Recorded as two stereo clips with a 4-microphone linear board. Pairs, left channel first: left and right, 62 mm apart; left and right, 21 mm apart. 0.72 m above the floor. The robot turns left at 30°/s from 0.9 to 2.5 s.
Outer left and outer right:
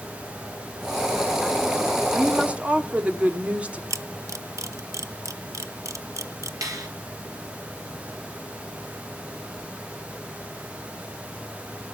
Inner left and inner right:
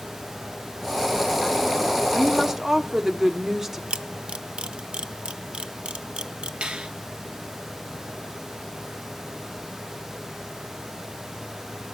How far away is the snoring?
I don't hear snoring.